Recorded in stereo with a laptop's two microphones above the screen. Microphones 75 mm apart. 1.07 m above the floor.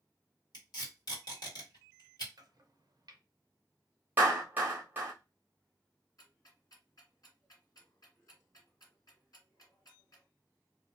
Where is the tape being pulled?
65° left (ahead or behind), 1.5 m.